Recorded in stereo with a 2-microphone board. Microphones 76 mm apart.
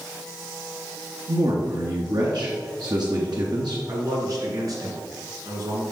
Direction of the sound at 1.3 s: 60° right (ahead or behind).